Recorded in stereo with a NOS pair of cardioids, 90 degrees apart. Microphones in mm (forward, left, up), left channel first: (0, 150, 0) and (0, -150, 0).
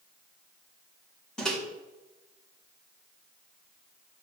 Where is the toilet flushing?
No toilet flushing in this recording.